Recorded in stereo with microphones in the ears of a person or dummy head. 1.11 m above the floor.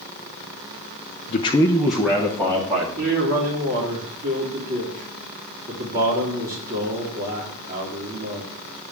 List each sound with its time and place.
1.3 s a man speaking: 40° left (ahead or behind), 0.7 m; by 2.9 s 25° right (ahead or behind), 1.5 m
3.0 s a man speaking: 50° right (ahead or behind), 2.5 m